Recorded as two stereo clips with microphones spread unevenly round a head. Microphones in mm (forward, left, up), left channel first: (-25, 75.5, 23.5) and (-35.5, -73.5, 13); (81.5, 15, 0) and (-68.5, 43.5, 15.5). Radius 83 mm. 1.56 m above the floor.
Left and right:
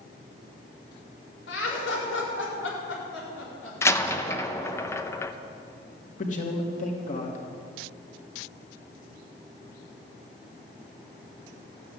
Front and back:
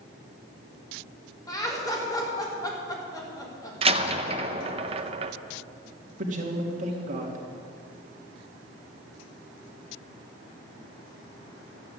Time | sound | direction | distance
1.5 | laughter | 60° left | 4.5 m
3.8 | a door slam | 145° left | 0.8 m
6.2 | a man speaking | 125° left | 3 m